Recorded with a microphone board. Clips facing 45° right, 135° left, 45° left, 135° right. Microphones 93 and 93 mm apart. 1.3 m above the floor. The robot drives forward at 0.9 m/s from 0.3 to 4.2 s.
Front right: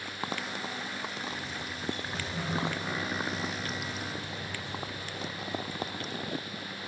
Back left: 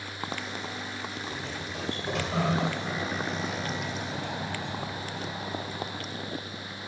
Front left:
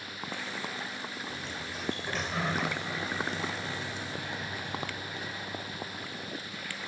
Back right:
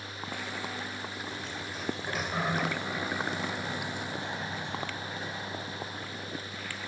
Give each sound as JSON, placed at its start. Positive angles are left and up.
{"t": 1.3, "sound": "a sliding door", "azimuth_deg": 130, "distance_m": 2.5}